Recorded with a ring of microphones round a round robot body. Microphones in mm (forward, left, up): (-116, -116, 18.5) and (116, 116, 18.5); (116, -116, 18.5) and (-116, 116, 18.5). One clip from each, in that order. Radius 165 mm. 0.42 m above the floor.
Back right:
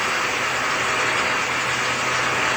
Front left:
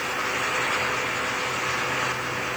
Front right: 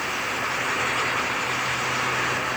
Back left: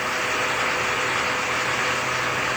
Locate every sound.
Only background noise.